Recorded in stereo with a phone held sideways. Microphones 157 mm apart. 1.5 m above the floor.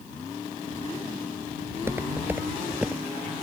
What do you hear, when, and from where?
1.7 s footsteps: 20° right (ahead or behind); by 3.0 s 10° right (ahead or behind)